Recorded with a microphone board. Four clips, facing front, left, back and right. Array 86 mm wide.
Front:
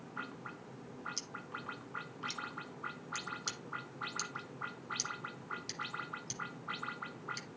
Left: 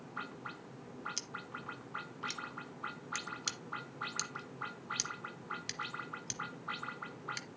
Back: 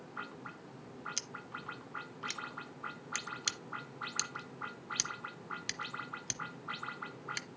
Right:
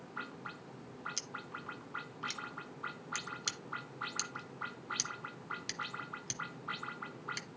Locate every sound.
1.2 s scissors: straight behind, 0.8 m